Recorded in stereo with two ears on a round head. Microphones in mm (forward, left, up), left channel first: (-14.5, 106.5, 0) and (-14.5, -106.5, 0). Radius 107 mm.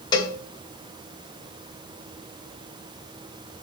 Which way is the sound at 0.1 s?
20° left (ahead or behind).